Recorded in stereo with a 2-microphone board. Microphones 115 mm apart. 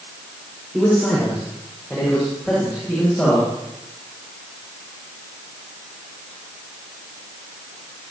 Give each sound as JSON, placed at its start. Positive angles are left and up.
{"t": 0.7, "sound": "a man speaking", "side_deg": 0, "distance_m": 6.5}